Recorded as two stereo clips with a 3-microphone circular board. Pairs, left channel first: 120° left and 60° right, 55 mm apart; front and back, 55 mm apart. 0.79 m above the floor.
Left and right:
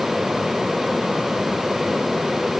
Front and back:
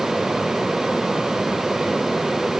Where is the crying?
I don't hear crying.